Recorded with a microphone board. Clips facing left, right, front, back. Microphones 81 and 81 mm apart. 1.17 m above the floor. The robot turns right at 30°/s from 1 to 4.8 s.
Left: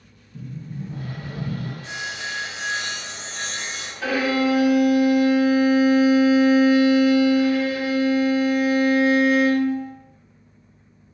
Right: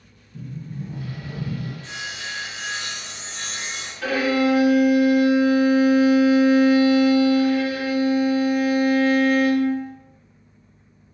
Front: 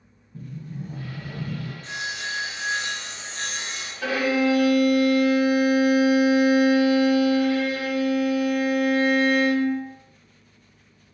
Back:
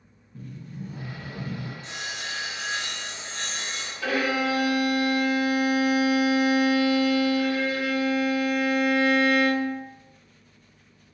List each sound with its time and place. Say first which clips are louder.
0.3 s a sliding door: even, front 3 dB; 15° left, 1.4 m; by 1.7 s 35° left, 1.4 m
1.8 s sawing: left 2 dB, front 4 dB; 20° left, 0.8 m; by 3.9 s 85° left, 0.8 m
4.0 s a violin: right 1 dB, front 3 dB; 10° left, 1.5 m; by 9.8 s 35° left, 1.5 m